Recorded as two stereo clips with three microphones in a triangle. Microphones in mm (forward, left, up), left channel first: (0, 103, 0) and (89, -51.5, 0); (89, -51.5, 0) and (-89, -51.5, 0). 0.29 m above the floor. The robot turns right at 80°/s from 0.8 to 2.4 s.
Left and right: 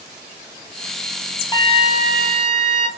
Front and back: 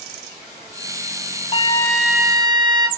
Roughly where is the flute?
Ahead left.